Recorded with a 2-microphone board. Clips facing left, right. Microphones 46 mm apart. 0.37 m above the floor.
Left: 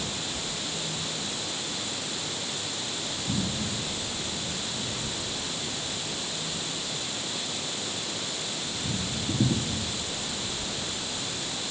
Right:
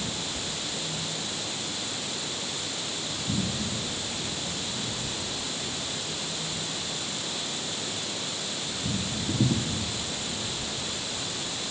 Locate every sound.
Only background noise.